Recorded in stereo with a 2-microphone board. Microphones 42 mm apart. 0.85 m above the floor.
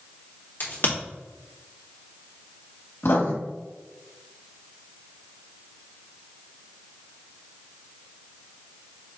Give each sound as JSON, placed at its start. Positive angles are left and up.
{"t": 0.6, "sound": "a crack", "side_deg": 50, "distance_m": 1.9}
{"t": 3.0, "sound": "writing", "side_deg": 65, "distance_m": 1.6}